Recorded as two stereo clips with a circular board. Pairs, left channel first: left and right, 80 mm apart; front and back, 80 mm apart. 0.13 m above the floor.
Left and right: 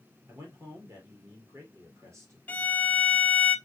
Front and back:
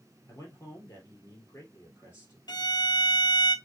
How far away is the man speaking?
About 3 m.